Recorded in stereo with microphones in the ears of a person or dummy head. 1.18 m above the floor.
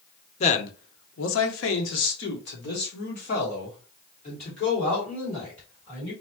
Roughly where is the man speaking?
Left.